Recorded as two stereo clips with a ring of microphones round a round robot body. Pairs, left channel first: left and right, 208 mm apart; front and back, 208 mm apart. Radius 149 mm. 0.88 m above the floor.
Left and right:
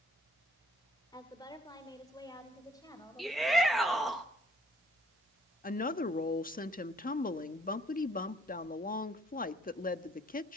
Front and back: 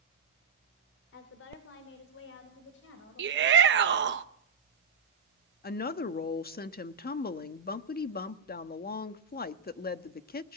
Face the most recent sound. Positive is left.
turn(degrees=45)